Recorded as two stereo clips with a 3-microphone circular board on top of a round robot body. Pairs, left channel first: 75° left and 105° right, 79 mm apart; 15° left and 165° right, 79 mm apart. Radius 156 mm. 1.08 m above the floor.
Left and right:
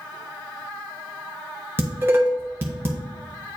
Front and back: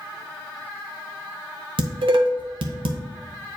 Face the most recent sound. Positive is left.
turn(degrees=-170)